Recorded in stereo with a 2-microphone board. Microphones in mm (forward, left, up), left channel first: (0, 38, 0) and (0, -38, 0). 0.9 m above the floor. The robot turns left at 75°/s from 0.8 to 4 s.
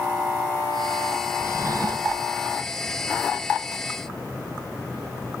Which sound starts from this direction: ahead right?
A drawer, at 1.4 s.